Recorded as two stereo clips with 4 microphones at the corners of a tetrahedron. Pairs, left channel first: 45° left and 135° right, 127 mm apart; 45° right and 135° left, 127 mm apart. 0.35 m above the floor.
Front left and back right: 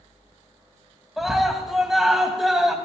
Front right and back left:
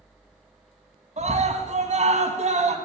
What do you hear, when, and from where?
1.2 s a scream: 135° left, 2.5 m